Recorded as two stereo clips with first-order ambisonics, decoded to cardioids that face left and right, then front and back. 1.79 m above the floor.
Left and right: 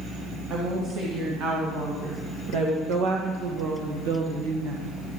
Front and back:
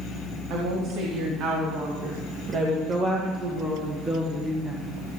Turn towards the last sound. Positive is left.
turn(degrees=-85)